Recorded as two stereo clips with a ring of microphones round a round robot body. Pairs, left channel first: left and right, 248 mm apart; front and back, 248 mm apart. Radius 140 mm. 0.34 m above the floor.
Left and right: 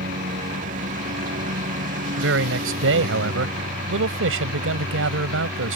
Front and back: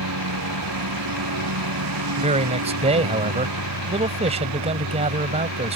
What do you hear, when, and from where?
0.0 s a lawn mower: 155° right
2.2 s a man speaking: 115° right